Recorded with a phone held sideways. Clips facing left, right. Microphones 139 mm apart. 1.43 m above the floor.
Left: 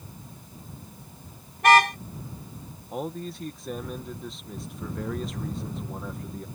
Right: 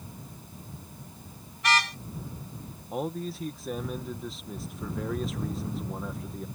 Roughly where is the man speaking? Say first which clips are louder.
Right 1 dB; centre.